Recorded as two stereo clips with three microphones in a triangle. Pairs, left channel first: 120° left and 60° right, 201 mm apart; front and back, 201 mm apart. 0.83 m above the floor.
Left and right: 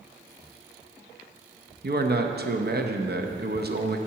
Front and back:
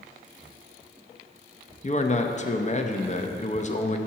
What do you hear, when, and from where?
1.8 s a man speaking: 45° right, 0.7 m